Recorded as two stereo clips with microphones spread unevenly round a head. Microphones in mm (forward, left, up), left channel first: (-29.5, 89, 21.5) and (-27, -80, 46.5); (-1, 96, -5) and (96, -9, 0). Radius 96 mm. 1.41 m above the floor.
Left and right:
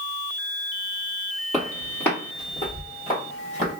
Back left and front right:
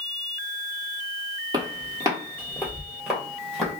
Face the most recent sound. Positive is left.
turn(degrees=45)